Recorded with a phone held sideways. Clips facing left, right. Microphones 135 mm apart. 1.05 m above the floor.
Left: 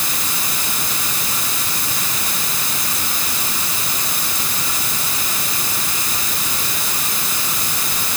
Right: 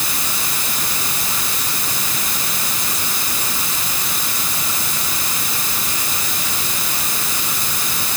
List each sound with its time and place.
Only background noise.